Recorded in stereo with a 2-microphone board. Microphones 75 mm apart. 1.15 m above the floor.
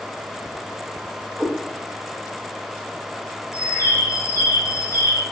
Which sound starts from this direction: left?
A bird, at 3.5 s.